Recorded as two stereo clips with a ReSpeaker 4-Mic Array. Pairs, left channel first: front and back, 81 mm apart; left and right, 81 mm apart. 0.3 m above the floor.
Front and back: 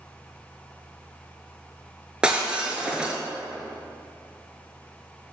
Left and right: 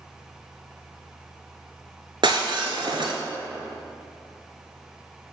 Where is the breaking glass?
100° right, 0.8 m.